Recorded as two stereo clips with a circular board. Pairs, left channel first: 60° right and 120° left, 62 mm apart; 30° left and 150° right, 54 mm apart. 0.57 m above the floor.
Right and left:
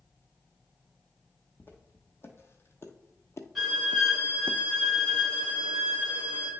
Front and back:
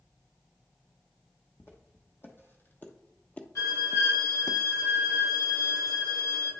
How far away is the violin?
About 3 m.